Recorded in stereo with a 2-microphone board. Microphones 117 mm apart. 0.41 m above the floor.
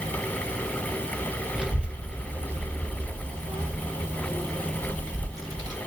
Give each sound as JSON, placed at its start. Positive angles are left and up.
{"t": 1.6, "sound": "a child speaking", "side_deg": -5, "distance_m": 1.6}